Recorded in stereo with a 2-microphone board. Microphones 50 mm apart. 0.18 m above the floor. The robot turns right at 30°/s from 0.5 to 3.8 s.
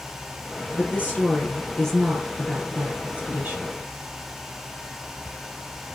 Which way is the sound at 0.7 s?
145° left.